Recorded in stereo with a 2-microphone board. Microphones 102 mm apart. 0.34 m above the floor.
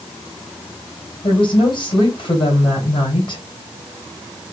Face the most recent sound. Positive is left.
turn(degrees=50)  # may be behind; listen again after turning